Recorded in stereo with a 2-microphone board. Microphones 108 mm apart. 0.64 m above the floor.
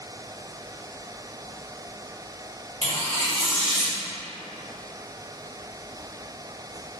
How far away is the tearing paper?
About 1.1 m.